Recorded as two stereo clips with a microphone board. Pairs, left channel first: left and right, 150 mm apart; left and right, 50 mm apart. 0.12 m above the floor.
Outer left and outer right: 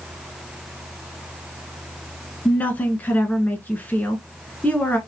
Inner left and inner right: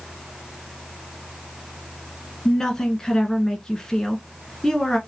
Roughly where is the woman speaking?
Centre.